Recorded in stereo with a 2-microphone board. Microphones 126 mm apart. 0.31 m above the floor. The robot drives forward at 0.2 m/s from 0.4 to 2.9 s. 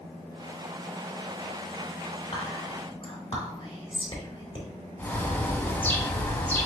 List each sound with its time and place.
2.3 s whispering: 45° left (ahead or behind), 2.5 m; by 4.7 s 40° left (ahead or behind), 2.5 m
5.0 s a bird: 15° left (ahead or behind), 0.7 m